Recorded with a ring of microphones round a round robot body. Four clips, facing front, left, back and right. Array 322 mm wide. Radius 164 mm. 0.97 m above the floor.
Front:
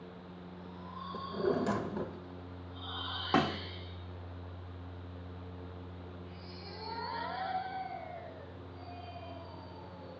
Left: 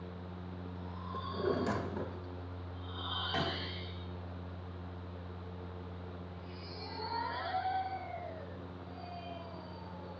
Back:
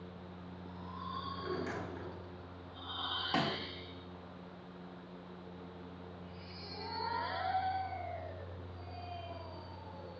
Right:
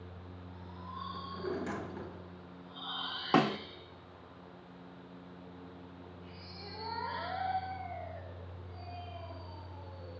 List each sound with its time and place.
1.1 s a drawer: 30° left, 1.4 m
3.3 s a snare drum: 65° right, 1.1 m